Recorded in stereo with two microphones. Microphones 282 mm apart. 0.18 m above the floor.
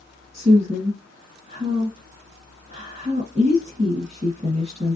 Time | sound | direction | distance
0.3 | a woman speaking | 25° right (ahead or behind) | 1.5 m